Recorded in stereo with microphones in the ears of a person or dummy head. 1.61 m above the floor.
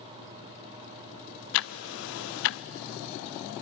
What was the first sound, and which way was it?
Ticking, 65° left (ahead or behind).